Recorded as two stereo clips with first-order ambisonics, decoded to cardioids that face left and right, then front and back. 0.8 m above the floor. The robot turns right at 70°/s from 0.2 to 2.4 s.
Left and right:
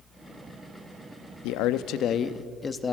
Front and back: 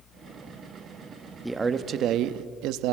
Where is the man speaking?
90° left, 0.7 m; by 2.9 s 160° left, 0.7 m.